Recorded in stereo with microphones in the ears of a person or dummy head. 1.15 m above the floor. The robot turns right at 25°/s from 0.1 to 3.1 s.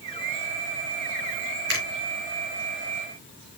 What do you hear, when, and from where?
1.7 s a finger snap: 65° right (ahead or behind), 3 m